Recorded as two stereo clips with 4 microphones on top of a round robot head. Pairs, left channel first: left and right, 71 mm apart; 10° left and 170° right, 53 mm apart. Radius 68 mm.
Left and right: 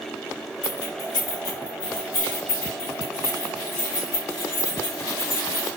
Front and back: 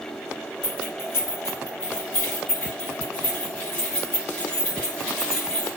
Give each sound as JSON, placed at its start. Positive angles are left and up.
{"t": 0.6, "sound": "keys jangling", "azimuth_deg": 45, "distance_m": 2.0}